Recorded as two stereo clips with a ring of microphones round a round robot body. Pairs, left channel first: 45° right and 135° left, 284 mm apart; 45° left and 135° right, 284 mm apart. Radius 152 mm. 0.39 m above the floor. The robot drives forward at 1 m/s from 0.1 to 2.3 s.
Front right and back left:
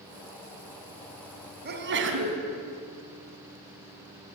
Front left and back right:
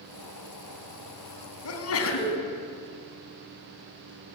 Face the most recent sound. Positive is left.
turn(degrees=90)